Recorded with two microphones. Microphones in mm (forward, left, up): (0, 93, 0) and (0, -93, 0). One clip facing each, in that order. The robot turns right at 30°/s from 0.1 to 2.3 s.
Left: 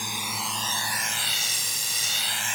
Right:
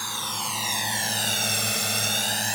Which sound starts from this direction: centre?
A drone, at 0.0 s.